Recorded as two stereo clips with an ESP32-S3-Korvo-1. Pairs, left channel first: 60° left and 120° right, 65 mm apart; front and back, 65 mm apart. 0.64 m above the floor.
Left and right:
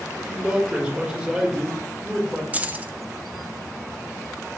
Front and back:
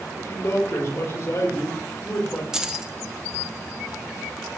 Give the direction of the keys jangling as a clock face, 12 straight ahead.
4 o'clock.